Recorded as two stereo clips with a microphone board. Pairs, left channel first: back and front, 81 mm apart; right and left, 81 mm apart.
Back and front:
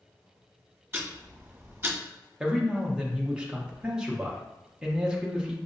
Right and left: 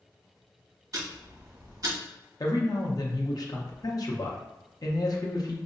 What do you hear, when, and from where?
0.9 s ticking: 55° left, 1.0 m
2.4 s a man speaking: 80° right, 0.6 m